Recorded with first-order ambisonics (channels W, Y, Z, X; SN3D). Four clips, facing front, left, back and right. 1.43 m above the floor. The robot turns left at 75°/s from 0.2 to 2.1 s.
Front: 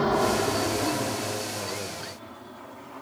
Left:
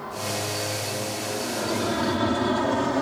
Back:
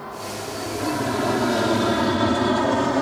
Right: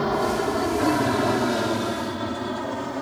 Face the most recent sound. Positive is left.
turn(degrees=160)